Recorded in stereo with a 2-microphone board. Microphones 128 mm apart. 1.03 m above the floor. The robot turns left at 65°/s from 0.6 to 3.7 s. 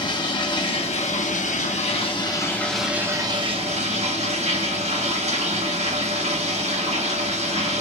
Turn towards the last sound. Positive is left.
turn(degrees=-60)